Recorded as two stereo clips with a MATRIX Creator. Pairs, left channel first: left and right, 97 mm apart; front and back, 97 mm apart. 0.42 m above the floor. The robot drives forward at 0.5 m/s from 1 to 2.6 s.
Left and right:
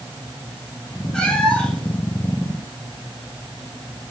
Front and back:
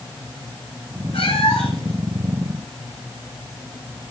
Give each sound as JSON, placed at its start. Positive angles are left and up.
{"t": 1.1, "sound": "a cat meowing", "azimuth_deg": 5, "distance_m": 1.8}